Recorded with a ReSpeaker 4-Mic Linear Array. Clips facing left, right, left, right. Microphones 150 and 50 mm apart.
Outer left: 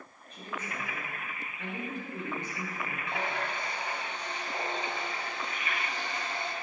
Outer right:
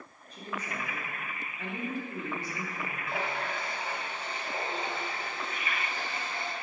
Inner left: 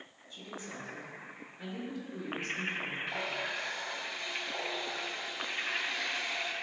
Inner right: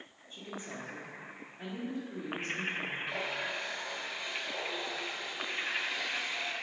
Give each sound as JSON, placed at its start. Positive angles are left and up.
{"t": 0.3, "sound": "a woman speaking", "side_deg": -35, "distance_m": 1.5}
{"t": 3.1, "sound": "a running tap", "side_deg": -5, "distance_m": 1.5}